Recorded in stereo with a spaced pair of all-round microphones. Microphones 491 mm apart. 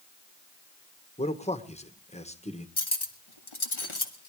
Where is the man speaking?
15° left (ahead or behind), 1.6 m.